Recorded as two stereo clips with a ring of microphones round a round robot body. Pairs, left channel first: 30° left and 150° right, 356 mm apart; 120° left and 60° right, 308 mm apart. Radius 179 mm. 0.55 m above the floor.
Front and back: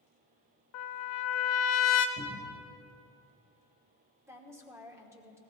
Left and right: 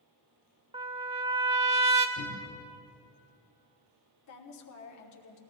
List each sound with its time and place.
0.7 s a trumpet: 10° left, 1.1 m
2.2 s a cupboard door: 100° left, 2 m
4.3 s a woman speaking: 130° left, 1.3 m